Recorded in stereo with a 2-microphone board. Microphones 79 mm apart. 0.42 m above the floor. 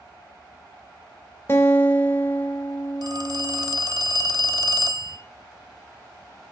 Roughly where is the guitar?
Left.